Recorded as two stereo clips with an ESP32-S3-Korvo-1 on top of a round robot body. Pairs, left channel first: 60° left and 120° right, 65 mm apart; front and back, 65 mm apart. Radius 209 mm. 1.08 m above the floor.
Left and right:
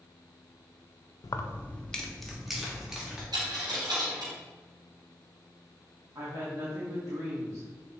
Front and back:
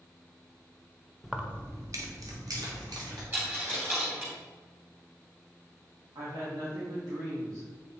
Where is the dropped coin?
120° right, 2.5 m.